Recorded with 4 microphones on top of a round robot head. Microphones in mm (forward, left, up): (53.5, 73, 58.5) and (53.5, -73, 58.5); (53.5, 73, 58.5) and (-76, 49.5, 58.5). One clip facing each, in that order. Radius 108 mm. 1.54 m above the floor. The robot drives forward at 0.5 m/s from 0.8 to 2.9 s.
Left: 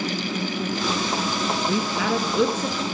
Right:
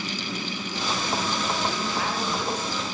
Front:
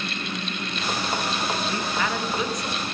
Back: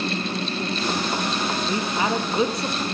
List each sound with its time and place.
1.7 s a woman speaking: 120° left, 2 m; by 2.8 s 130° left, 2.5 m